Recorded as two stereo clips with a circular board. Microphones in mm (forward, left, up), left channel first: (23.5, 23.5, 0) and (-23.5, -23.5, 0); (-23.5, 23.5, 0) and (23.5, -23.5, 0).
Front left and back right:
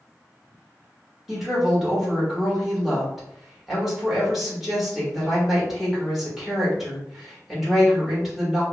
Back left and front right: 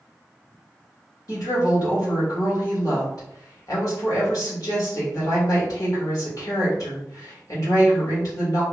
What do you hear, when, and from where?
1.3 s a woman speaking: 140° left, 1.5 m